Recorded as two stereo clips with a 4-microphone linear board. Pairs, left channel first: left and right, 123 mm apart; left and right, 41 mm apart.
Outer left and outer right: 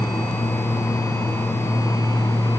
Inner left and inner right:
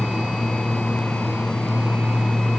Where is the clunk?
No clunk in this recording.